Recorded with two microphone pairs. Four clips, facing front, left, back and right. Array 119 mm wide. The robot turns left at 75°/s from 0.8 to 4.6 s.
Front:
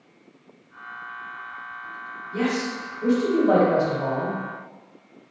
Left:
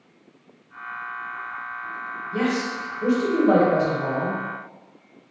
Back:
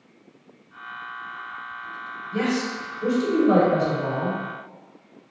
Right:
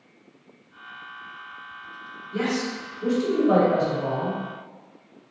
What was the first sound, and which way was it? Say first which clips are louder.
A man speaking: left 2 dB, even; 135° left.